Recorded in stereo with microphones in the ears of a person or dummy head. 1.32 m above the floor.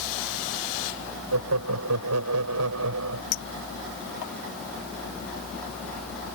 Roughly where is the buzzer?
No buzzer in this recording.